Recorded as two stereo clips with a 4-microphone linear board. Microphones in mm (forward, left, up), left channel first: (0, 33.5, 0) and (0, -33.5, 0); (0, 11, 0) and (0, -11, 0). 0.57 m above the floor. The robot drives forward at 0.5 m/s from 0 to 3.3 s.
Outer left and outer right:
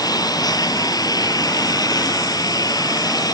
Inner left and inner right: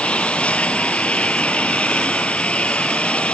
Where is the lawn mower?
75° left (ahead or behind).